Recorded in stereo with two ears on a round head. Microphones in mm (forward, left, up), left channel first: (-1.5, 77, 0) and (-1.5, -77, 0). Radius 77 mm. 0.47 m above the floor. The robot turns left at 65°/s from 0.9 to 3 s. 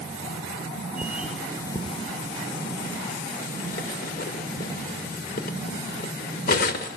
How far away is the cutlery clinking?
About 1.0 m.